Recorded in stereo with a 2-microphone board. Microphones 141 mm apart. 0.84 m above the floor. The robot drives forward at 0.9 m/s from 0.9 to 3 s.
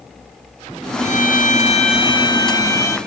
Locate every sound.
1.0 s a violin: 55° left (ahead or behind), 0.7 m; by 3.0 s 20° left (ahead or behind), 1.6 m